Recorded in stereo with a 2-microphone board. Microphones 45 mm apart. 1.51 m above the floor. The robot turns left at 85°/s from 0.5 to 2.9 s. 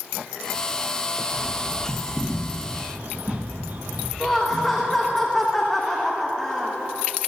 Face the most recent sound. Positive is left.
turn(degrees=5)  # may be behind; listen again after turning